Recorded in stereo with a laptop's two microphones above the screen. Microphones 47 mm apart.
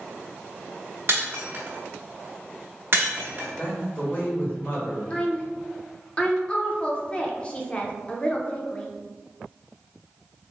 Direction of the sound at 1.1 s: 50° right (ahead or behind).